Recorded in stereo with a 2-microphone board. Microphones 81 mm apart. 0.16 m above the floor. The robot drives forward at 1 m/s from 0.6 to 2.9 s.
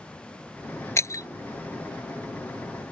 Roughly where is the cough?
No cough in this recording.